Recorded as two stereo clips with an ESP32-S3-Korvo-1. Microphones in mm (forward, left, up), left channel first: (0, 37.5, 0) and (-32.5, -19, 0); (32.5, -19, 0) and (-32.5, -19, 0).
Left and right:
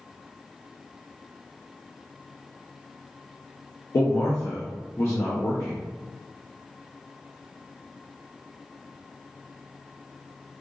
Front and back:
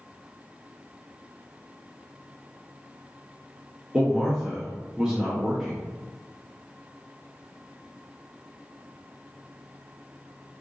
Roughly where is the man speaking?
Left.